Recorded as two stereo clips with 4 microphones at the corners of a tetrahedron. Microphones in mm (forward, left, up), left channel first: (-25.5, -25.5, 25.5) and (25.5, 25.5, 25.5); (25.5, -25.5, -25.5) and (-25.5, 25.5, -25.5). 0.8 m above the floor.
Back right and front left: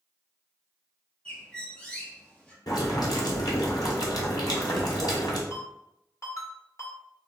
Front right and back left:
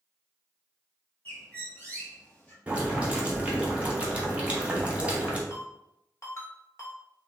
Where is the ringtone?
95° right, 1.3 m.